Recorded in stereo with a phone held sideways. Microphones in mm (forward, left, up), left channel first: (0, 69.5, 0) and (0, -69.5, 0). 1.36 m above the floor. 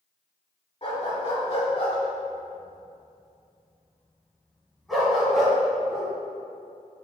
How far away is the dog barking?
About 1.7 m.